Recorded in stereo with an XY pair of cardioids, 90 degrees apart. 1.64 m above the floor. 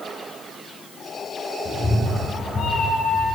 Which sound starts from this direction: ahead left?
A cat meowing, at 1.6 s.